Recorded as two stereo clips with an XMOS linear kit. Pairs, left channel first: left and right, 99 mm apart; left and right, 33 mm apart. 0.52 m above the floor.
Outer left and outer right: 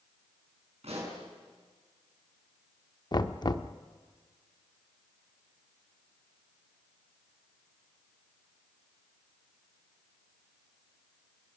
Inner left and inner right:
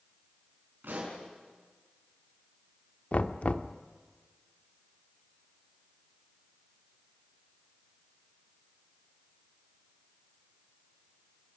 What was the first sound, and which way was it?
A pop, 80° right.